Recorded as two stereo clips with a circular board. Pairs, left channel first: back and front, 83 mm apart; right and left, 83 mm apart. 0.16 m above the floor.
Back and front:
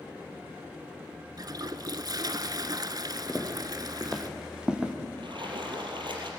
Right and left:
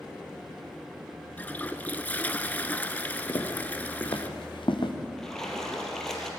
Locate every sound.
1.4 s a toilet flushing: 25° right, 1.0 m
3.3 s footsteps: 100° right, 3 m; by 4.9 s 75° right, 3 m
5.2 s a splash: 5° right, 4 m